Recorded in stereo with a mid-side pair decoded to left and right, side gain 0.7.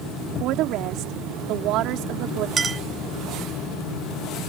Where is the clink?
20° right.